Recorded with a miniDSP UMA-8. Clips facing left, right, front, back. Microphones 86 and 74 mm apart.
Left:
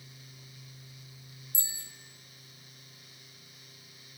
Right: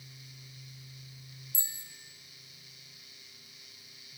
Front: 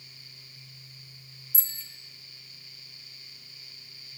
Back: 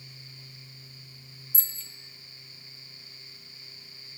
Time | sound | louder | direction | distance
1.5 | a bicycle bell | left 2 dB, front 1 dB | 90° left | 2 m